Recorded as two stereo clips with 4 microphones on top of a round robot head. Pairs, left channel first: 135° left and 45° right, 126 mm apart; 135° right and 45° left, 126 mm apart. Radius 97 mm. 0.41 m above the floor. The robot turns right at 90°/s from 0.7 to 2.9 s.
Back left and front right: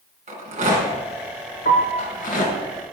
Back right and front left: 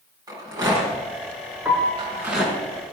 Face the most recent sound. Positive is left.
turn(degrees=-125)